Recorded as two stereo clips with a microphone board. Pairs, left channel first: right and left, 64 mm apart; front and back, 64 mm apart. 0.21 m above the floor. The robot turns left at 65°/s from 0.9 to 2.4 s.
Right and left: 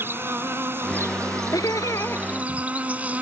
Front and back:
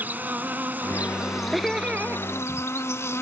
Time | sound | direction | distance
0.0 | an insect | 130° left | ?
1.5 | laughter | 90° right | ?